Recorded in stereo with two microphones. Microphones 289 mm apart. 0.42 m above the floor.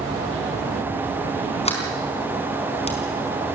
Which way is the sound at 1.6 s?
20° left (ahead or behind).